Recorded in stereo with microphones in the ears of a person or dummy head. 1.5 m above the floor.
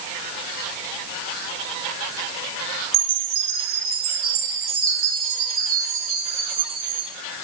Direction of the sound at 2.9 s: 50° right (ahead or behind).